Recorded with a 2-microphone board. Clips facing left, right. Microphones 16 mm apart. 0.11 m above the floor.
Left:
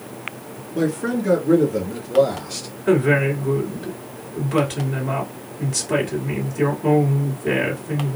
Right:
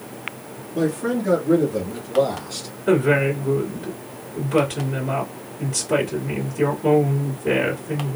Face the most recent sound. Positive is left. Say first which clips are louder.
# even
turn(degrees=15)  # may be behind; listen again after turning